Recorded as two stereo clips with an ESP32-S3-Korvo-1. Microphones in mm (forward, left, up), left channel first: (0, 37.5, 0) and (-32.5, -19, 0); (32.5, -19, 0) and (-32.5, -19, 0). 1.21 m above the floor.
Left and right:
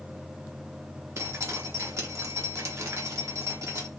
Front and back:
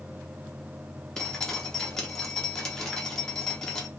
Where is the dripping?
80° right, 0.9 m.